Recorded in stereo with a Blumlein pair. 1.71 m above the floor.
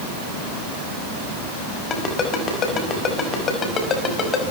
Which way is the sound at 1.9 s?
25° left.